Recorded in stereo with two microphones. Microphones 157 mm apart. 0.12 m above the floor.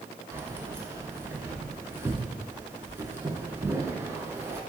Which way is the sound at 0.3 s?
15° right (ahead or behind).